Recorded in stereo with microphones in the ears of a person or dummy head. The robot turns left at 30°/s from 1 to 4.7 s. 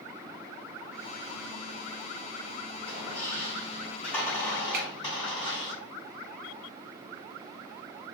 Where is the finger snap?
45° right (ahead or behind), 0.6 m.